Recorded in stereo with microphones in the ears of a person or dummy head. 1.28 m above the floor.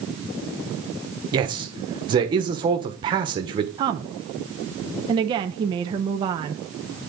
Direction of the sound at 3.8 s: 25° right (ahead or behind).